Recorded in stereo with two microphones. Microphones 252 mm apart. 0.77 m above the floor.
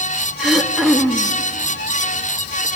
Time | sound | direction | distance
0.4 | throat clearing | centre (ahead or behind) | 1.5 m